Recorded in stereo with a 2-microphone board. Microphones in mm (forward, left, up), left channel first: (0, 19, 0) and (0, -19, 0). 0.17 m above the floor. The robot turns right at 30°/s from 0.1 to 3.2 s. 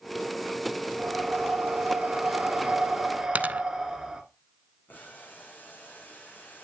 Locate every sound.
1.0 s breathing: 80° right, 1.8 m; by 4.2 s 15° right, 1.8 m
3.4 s a dropped coin: 45° right (ahead or behind), 0.6 m
4.9 s boiling: 55° left (ahead or behind), 6.5 m